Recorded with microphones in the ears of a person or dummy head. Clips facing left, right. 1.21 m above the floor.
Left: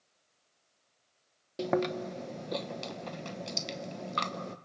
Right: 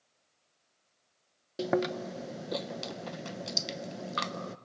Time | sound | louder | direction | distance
1.6 | chewing | even | 5° right (ahead or behind) | 0.7 m